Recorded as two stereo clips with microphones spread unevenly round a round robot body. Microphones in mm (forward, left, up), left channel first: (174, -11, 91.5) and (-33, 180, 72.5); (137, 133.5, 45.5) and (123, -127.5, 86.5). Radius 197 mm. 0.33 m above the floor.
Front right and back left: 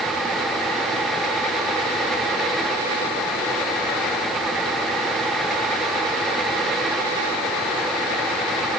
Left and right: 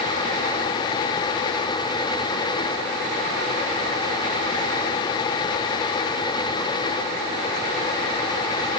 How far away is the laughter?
No laughter in this recording.